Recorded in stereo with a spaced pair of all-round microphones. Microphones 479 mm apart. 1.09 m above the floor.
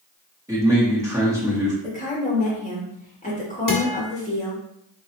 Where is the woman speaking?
15° left (ahead or behind), 1.8 m.